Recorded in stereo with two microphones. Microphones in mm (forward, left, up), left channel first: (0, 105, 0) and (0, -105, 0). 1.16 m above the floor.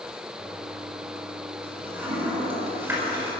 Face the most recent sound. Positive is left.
turn(degrees=-10)  # may be behind; listen again after turning